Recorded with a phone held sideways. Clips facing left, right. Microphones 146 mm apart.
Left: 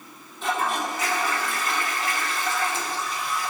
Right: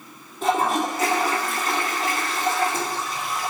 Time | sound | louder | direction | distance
0.4 | a toilet flushing | right 5 dB | 40° right (ahead or behind) | 2 m